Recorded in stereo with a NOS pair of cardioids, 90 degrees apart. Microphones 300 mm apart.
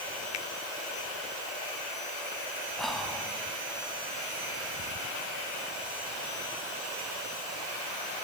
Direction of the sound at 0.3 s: 60° left.